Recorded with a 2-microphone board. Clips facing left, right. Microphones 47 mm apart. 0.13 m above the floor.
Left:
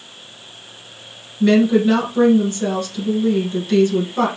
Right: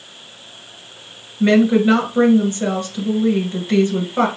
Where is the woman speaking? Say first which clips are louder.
Even; 25° right (ahead or behind), 1.4 m.